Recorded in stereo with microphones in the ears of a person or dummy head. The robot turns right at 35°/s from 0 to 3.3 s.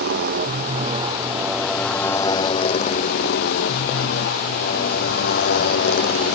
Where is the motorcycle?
60° right (ahead or behind); by 6.3 s 50° left (ahead or behind).